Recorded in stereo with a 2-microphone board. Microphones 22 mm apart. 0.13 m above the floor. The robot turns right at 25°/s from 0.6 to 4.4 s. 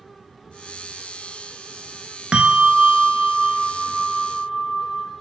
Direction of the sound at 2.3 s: 75° right.